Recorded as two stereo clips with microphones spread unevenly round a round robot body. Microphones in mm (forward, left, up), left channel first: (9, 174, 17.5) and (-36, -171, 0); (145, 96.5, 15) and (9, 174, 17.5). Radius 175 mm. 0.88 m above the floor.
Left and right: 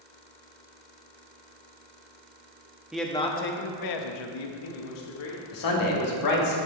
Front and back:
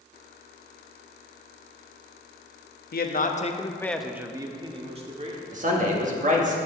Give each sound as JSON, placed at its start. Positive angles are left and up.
{"t": 2.9, "sound": "a man speaking", "azimuth_deg": -10, "distance_m": 1.3}
{"t": 5.5, "sound": "a man speaking", "azimuth_deg": 115, "distance_m": 2.0}